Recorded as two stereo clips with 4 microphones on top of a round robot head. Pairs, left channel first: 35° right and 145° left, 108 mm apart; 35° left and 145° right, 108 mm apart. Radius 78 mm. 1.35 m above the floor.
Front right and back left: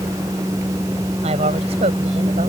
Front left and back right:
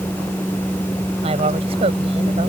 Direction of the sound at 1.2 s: Straight behind.